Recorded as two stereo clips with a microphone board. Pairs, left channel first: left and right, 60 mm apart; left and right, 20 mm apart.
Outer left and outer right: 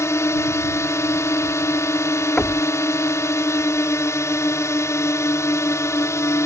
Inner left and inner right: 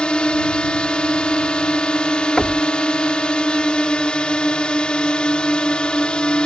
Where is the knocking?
15° left (ahead or behind).